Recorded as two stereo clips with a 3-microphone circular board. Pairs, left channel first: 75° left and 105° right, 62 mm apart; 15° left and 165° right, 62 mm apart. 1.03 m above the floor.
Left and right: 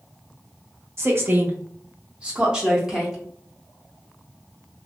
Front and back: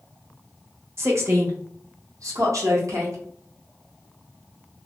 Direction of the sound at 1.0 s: 130° right.